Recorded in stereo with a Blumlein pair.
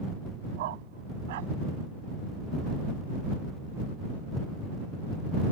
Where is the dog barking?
55° right.